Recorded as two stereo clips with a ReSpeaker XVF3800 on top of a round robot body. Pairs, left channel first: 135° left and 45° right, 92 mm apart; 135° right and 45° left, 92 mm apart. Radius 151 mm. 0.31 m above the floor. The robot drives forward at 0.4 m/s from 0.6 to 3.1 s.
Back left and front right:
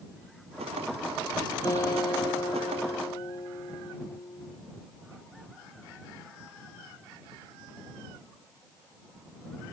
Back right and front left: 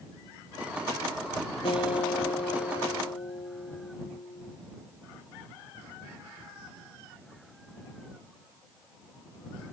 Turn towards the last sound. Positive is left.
turn(degrees=-170)